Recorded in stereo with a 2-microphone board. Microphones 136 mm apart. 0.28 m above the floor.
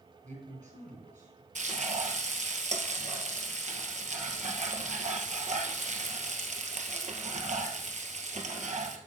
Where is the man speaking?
65° right (ahead or behind), 5.5 m.